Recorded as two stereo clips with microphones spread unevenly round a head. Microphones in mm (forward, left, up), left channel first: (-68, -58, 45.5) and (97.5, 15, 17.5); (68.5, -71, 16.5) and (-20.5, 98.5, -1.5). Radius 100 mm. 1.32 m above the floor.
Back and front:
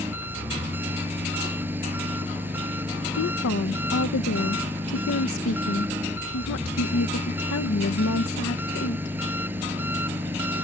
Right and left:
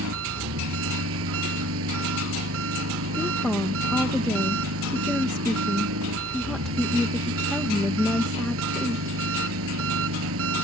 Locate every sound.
0.0 s an engine running: 105° left
3.2 s a woman speaking: 150° right